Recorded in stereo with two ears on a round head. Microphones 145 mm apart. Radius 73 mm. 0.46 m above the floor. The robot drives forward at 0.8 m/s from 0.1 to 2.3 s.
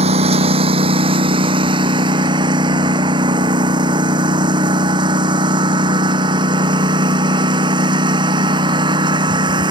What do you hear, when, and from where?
0.0 s a lawn mower: 40° right (ahead or behind); by 9.7 s 30° right (ahead or behind)